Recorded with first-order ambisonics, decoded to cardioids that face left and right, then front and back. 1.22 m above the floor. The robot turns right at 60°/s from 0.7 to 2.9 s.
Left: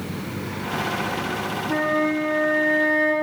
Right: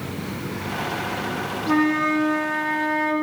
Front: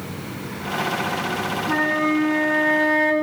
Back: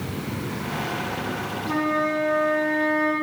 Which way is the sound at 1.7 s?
90° right.